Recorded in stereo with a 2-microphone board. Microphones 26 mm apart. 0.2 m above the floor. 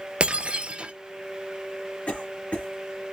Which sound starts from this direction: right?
Breaking glass, at 0.2 s.